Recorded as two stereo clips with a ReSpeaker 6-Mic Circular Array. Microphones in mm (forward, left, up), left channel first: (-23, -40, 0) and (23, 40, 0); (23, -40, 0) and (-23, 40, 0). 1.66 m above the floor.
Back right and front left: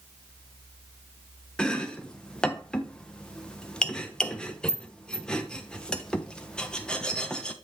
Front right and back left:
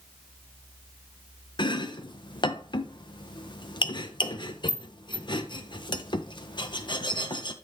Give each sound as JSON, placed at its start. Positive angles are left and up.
{"t": 1.6, "sound": "chopping", "azimuth_deg": -40, "distance_m": 0.7}